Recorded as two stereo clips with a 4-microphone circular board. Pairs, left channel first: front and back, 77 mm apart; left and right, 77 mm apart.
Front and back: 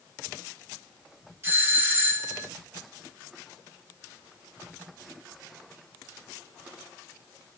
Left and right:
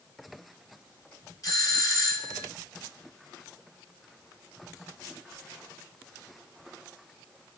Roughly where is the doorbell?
Behind left.